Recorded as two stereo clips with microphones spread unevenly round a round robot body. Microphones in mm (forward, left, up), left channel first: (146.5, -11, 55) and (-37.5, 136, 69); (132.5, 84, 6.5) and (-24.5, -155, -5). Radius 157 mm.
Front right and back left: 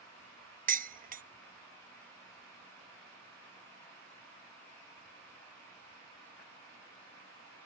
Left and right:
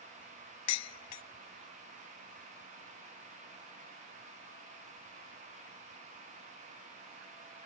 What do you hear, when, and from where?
0.7 s dishes clattering: 85° left, 0.7 m